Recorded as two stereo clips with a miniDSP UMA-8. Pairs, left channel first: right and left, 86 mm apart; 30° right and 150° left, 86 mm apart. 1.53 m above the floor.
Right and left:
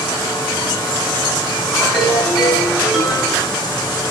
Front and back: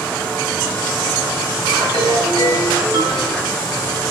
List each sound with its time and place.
1.8 s a ringtone: 175° left, 5.5 m